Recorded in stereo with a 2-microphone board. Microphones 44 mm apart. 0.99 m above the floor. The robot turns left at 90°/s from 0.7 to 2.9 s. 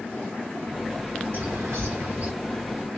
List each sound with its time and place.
1.3 s a bird: 60° right, 1.6 m; by 2.3 s 145° right, 1.6 m